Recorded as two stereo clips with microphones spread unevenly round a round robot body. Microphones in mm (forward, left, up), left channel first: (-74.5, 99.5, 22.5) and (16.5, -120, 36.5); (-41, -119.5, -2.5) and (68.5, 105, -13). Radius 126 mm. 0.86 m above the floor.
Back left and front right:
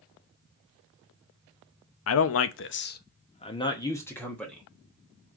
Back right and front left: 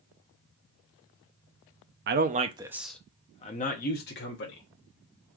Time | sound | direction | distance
2.1 | a man speaking | 110° left | 0.6 m